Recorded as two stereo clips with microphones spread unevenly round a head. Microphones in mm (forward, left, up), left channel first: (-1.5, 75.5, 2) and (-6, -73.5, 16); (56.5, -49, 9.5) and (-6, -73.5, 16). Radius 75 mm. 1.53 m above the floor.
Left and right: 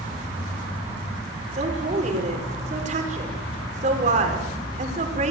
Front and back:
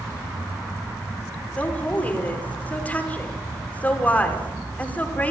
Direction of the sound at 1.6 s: 45° right.